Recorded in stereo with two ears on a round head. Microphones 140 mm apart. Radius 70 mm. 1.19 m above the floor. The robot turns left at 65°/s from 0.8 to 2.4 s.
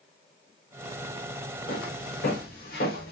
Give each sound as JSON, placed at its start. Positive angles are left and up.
{"t": 1.7, "sound": "footsteps", "side_deg": 60, "distance_m": 4.0}